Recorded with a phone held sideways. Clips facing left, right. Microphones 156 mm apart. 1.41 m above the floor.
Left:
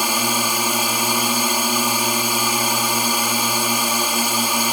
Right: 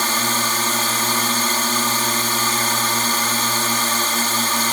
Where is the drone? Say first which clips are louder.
Left 1 dB; 10° left (ahead or behind).